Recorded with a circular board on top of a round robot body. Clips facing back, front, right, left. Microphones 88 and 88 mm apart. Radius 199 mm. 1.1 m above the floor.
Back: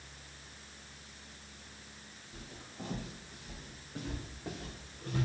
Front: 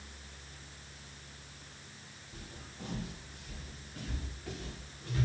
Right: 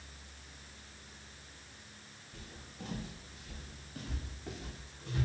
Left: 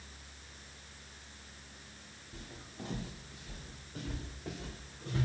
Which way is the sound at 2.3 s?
110° left.